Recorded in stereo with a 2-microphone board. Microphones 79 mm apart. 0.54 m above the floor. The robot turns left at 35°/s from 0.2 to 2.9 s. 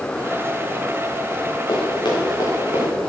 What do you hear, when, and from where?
1.7 s running footsteps: 80° left, 4 m; by 2.9 s 35° left (ahead or behind), 4 m